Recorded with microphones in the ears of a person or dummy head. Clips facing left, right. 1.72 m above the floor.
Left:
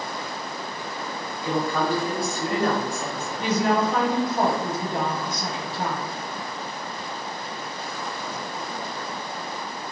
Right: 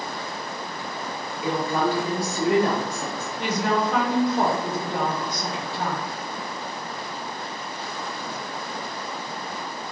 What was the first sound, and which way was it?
A woman speaking, 10° right (ahead or behind).